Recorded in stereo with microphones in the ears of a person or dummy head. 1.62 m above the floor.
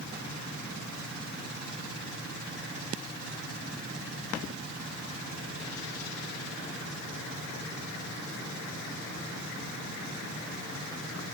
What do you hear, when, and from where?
Only background noise.